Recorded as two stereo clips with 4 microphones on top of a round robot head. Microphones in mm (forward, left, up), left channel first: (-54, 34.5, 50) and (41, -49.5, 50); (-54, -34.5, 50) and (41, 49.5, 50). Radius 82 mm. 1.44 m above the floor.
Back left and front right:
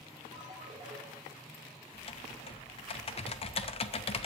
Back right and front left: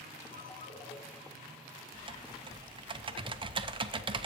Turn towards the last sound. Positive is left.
turn(degrees=95)